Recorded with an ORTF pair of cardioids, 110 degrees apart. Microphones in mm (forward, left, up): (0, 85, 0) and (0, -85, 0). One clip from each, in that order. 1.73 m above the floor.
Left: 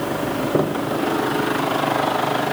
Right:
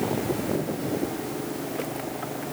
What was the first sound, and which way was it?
Only background noise.